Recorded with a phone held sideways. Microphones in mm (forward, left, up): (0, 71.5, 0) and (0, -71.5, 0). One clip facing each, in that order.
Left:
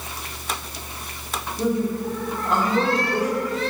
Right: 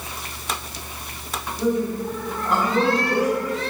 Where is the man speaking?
20° left (ahead or behind), 1.9 m; by 3.4 s 25° right (ahead or behind), 1.7 m.